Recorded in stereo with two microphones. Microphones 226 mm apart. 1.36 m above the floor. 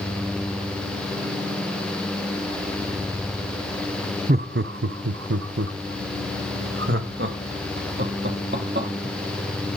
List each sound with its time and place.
4.3 s laughter: 40° right (ahead or behind), 0.5 m; by 9.8 s 50° right (ahead or behind), 3.5 m